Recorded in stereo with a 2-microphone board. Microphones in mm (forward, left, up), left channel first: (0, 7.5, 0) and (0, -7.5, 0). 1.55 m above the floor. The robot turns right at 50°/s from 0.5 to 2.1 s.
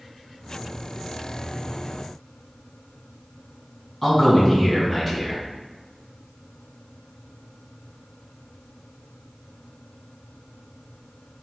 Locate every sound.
4.0 s a man speaking: 10° left (ahead or behind), 1.5 m